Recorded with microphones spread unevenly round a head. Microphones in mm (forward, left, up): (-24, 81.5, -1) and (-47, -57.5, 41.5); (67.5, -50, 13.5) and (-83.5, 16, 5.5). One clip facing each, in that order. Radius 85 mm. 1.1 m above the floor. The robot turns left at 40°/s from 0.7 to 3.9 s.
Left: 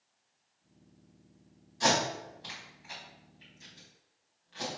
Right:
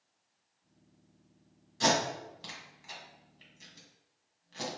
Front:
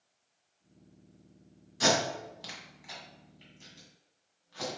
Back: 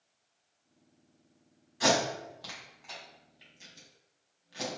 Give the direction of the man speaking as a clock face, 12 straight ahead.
No man speaking in this recording.